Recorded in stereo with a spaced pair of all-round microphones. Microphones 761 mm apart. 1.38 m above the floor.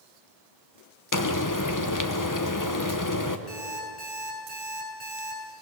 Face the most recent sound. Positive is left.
turn(degrees=55)  # may be behind; listen again after turning